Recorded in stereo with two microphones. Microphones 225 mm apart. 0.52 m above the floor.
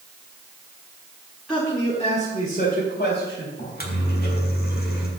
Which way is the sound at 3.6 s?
50° left (ahead or behind).